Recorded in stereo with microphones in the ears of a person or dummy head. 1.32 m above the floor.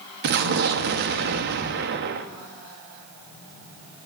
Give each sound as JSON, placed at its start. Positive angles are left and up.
{"t": 0.2, "sound": "an explosion", "side_deg": -50, "distance_m": 0.9}